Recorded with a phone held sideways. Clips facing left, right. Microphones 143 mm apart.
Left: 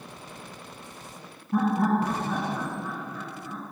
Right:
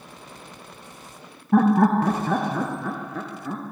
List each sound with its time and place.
1.5 s laughter: 70° right (ahead or behind), 0.5 m